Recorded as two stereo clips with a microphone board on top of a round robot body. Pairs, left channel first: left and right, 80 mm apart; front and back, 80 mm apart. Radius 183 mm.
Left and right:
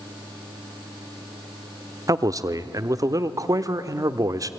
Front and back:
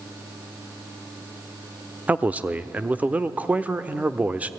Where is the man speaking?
115° right, 1.1 m.